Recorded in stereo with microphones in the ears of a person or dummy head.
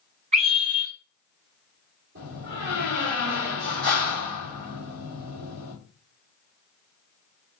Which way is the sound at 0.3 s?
35° right (ahead or behind).